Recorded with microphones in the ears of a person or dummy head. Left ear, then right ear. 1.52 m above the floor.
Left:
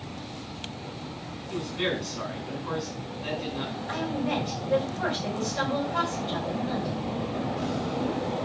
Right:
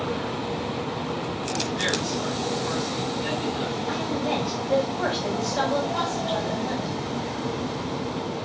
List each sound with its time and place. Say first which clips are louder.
1.5 s a man speaking: right 3 dB; 5° right (ahead or behind), 7.5 m
3.9 s a woman speaking: right 1 dB; 35° right (ahead or behind), 7 m